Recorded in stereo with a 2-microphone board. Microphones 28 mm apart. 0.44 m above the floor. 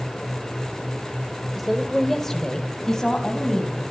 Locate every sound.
1.6 s a woman speaking: 5° left (ahead or behind), 1.7 m; by 3.8 s 25° left (ahead or behind), 4 m